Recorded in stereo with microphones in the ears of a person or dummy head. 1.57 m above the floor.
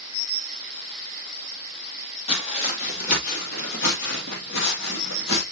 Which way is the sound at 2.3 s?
25° left (ahead or behind).